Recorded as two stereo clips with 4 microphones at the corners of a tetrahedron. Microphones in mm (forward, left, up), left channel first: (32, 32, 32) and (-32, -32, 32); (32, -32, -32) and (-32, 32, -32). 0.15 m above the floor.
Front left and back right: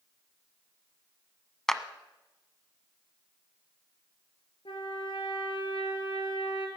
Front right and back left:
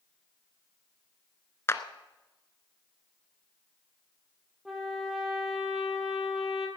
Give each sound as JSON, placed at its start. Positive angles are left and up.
{"t": 1.7, "sound": "a clap", "azimuth_deg": -35, "distance_m": 1.0}
{"t": 4.7, "sound": "a trumpet", "azimuth_deg": 50, "distance_m": 3.0}